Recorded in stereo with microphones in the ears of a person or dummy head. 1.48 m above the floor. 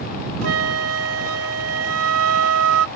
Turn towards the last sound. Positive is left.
turn(degrees=-80)